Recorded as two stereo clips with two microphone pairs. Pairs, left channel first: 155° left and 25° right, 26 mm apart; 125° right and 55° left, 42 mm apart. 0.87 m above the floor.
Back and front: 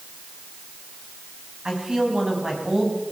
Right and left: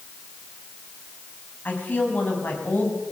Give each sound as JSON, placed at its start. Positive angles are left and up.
{"t": 1.6, "sound": "a woman speaking", "azimuth_deg": -85, "distance_m": 6.5}